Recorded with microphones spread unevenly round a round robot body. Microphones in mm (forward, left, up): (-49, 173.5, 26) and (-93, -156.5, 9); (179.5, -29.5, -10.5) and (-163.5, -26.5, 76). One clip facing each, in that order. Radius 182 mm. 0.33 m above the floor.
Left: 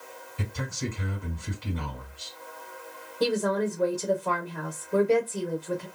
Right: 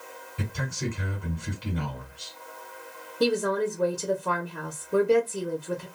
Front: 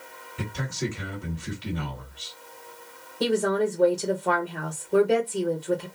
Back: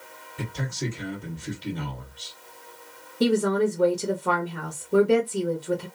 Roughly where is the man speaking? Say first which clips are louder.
Right 1 dB, front 1 dB; ahead right.